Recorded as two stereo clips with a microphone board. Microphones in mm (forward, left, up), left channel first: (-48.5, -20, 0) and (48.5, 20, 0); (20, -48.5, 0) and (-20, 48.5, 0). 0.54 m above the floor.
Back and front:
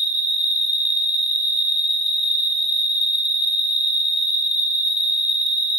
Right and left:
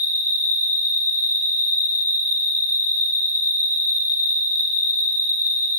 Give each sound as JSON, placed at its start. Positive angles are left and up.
{"t": 0.0, "sound": "an insect", "azimuth_deg": -125, "distance_m": 1.3}